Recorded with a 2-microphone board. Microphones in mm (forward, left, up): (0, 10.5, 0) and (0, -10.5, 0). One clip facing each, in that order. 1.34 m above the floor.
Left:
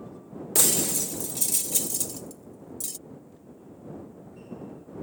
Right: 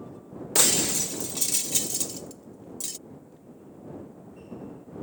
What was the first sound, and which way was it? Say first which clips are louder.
Breaking glass: right 2 dB; 20° right (ahead or behind).